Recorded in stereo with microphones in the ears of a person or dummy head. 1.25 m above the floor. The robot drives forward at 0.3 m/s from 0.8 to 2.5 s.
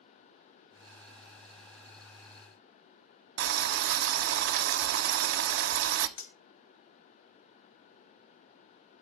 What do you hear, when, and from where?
3.4 s boiling: 60° right (ahead or behind), 0.6 m
6.2 s cutlery clinking: 50° left (ahead or behind), 0.7 m